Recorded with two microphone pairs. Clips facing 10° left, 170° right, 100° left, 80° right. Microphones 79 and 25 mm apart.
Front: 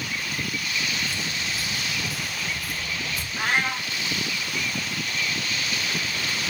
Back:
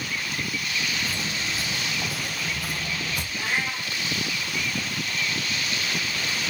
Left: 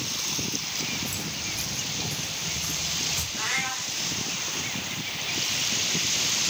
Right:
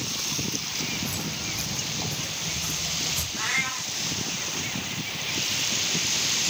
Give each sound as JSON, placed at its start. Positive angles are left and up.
{"t": 1.1, "sound": "footsteps", "azimuth_deg": -125, "distance_m": 2.5}
{"t": 3.4, "sound": "a cat meowing", "azimuth_deg": 10, "distance_m": 2.0}